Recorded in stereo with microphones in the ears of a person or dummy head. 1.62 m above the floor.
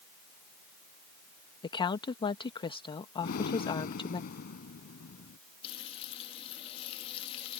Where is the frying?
30° left (ahead or behind).